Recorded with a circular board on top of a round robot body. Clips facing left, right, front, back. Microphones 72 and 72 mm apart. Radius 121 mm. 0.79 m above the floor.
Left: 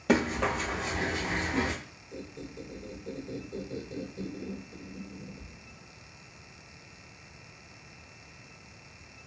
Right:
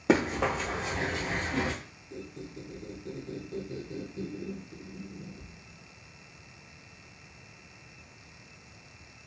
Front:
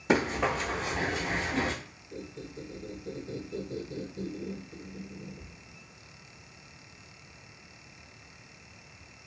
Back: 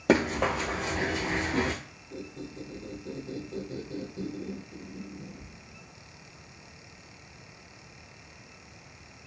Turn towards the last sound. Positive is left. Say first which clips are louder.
# even, back 1 dB
turn(degrees=-100)